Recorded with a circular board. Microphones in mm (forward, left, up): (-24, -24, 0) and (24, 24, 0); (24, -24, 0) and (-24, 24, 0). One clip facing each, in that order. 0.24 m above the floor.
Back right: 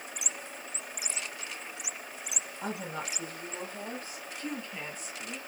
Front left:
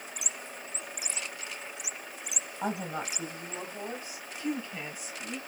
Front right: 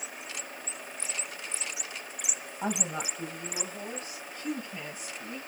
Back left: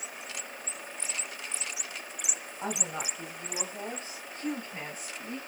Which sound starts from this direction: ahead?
A woman speaking, at 2.6 s.